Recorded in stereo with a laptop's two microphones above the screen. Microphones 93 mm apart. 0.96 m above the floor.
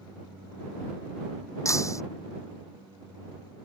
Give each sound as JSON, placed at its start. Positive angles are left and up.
{"t": 1.6, "sound": "breaking glass", "side_deg": 35}